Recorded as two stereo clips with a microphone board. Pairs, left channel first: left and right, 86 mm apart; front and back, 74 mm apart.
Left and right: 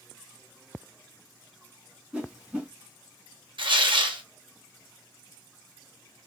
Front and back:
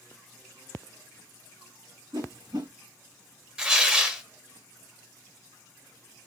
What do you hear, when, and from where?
2.1 s a whoosh: 165° right, 3 m
3.6 s tearing paper: 100° right, 1.1 m